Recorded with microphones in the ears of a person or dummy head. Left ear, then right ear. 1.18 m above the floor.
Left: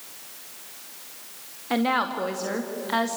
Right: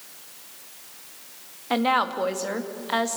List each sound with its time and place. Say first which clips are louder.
1.7 s a woman speaking: right 2 dB; 20° right (ahead or behind), 1.8 m